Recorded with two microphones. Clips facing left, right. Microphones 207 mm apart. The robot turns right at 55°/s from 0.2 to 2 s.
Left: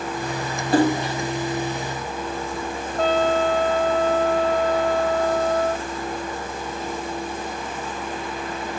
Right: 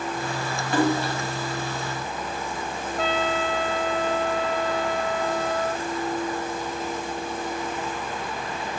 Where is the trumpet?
40° left (ahead or behind), 0.6 m.